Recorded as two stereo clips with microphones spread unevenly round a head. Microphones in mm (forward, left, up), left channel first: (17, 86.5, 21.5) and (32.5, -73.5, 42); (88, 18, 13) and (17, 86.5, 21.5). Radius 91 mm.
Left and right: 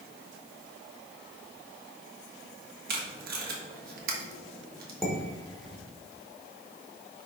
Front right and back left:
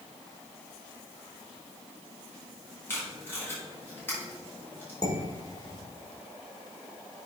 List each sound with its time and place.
2.9 s tape being pulled: 115° right, 1.4 m
5.0 s dishes clattering: 5° left, 2 m